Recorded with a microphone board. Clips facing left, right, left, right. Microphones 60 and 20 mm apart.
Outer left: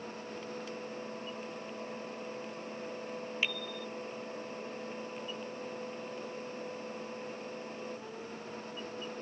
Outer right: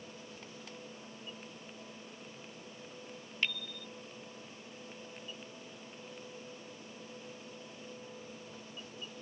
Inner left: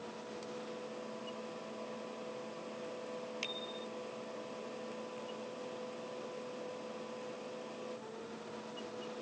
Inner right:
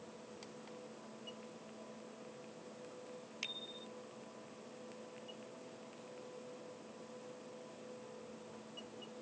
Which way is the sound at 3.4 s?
10° left (ahead or behind).